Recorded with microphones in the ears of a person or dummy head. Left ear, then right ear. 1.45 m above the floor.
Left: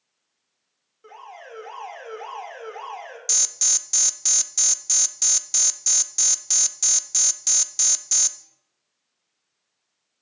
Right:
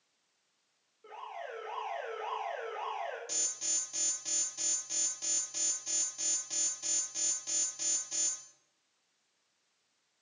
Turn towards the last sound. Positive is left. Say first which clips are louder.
# left 14 dB
turn(degrees=55)  # may be behind; listen again after turning